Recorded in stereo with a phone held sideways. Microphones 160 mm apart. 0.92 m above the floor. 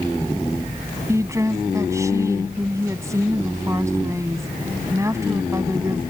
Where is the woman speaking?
20° right (ahead or behind).